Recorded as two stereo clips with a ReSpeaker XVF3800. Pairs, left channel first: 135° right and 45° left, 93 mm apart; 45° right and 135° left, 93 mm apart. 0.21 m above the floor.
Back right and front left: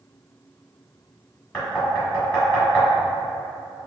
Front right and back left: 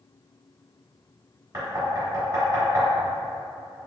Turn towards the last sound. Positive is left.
turn(degrees=155)